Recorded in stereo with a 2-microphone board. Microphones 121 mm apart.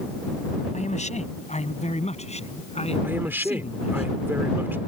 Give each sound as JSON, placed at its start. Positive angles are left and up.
{"t": 0.7, "sound": "a man speaking", "side_deg": 75}
{"t": 3.0, "sound": "a man speaking", "side_deg": -15}